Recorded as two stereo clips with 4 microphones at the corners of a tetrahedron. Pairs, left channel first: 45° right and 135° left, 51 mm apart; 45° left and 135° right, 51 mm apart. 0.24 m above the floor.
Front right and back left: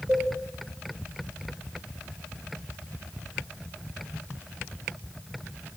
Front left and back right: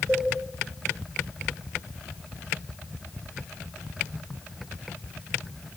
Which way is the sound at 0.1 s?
150° right.